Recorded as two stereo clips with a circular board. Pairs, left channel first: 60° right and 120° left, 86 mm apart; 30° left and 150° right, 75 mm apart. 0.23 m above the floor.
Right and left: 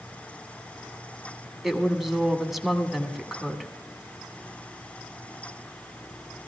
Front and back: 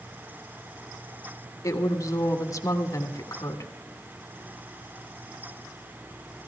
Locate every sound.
1.6 s a woman speaking: 35° left, 1.4 m